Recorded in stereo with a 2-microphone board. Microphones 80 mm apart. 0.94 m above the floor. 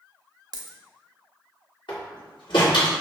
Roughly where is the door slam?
Left.